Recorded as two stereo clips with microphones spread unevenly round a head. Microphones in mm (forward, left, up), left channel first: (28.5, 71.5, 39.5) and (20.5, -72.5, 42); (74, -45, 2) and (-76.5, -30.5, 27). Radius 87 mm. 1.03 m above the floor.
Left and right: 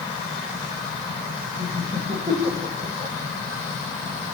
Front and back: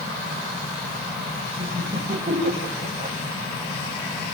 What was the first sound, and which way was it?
Laughter, 145° right.